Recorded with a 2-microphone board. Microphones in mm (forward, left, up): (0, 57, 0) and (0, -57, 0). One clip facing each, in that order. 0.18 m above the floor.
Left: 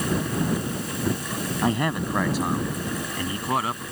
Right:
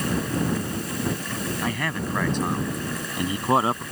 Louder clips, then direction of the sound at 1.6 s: Left 8 dB; 25° left (ahead or behind).